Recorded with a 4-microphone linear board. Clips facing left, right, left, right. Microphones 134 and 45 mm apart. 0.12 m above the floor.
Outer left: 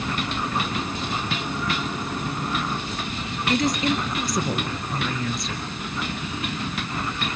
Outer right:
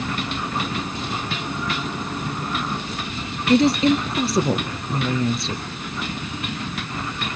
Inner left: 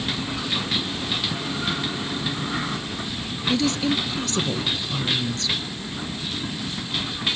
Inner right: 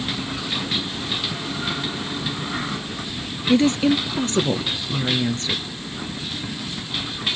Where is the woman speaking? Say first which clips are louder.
Outer right 7 dB, inner right 5 dB; 30° right (ahead or behind), 1.8 m.